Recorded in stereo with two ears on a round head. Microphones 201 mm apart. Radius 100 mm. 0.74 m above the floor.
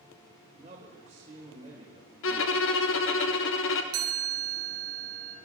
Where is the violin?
60° left (ahead or behind), 0.9 m.